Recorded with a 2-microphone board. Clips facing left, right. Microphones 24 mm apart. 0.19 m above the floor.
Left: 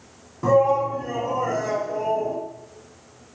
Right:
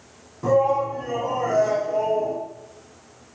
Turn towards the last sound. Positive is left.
turn(degrees=-45)  # may be behind; listen again after turning